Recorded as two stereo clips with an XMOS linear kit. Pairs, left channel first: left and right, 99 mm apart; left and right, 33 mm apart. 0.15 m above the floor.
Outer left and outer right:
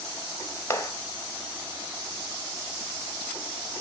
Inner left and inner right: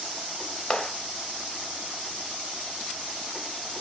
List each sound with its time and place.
0.7 s a clap: 25° left (ahead or behind), 1.2 m